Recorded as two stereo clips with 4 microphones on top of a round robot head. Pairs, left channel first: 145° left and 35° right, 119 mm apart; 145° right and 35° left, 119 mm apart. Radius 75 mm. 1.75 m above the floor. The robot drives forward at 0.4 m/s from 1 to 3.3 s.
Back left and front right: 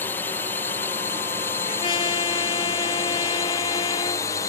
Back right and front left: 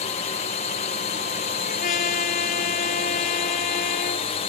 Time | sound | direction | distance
0.0 | a drone | 145° right | ?
1.6 | a trumpet | 165° right | ?